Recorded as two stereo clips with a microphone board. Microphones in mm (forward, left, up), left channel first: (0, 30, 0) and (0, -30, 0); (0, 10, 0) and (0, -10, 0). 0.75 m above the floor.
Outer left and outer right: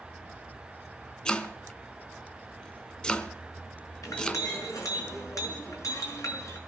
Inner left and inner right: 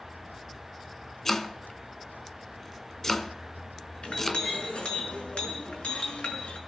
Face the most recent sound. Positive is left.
turn(degrees=75)  # may be behind; listen again after turning